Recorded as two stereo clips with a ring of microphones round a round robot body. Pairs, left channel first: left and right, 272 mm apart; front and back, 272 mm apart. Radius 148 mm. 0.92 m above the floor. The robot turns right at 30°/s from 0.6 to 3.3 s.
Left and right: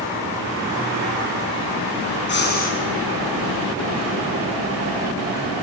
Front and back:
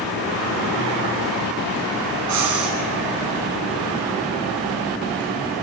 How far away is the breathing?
About 6 m.